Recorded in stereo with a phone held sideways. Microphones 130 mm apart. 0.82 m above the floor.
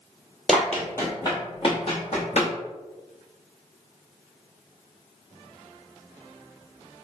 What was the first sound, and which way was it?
Running footsteps, centre (ahead or behind).